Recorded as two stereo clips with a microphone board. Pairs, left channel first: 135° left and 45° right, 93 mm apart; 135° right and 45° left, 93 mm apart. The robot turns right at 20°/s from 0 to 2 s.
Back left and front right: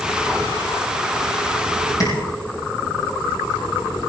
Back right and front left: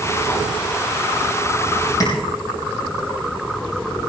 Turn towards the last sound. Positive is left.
turn(degrees=180)